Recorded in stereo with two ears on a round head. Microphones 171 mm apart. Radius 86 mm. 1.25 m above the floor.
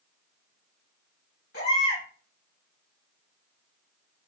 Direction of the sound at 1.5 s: 55° left (ahead or behind).